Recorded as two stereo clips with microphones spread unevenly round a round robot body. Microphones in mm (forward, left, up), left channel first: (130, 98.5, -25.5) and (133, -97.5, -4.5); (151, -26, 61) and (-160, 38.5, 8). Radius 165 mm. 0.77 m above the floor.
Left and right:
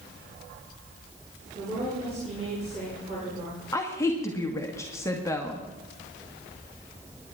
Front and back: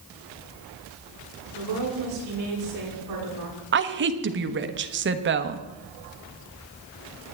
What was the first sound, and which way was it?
A woman speaking, 160° right.